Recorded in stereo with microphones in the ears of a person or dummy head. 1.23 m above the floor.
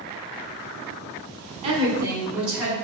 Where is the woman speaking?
30° right (ahead or behind), 1.2 m; by 2.7 s 5° right (ahead or behind), 2.5 m.